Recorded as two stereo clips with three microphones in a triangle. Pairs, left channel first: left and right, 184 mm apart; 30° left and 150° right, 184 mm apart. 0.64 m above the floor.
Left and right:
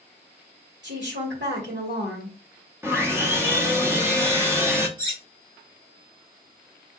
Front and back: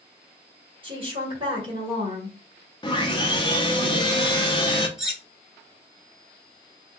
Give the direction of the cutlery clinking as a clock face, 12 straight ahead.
2 o'clock.